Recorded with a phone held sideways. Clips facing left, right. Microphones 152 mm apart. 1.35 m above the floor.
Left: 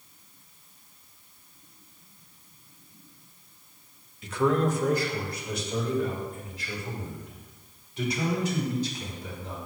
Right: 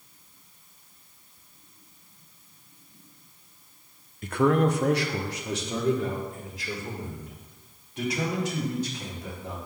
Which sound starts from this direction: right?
A man speaking, at 4.2 s.